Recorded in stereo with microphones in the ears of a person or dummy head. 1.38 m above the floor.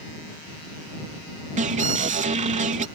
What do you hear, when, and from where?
1.6 s an alarm: 35° right (ahead or behind)